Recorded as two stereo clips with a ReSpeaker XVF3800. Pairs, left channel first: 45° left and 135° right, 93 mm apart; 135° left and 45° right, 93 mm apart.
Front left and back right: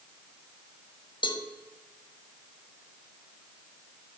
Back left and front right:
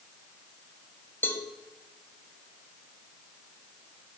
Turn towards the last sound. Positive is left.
turn(degrees=65)